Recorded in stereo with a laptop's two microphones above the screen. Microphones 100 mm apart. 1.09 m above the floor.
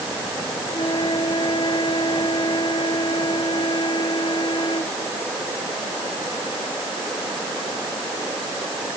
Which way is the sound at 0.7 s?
55° left (ahead or behind).